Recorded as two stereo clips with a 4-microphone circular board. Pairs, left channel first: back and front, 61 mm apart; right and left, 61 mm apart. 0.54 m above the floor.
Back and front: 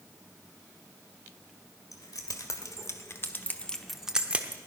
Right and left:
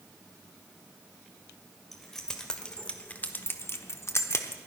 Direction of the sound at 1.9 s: 175° right.